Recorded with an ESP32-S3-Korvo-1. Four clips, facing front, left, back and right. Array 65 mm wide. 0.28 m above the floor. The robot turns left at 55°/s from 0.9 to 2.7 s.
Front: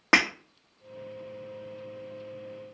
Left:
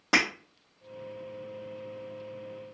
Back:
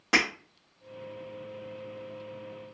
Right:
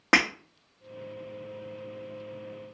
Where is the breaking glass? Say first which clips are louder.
Right 3 dB, front 3 dB; 50° right, 1.1 m.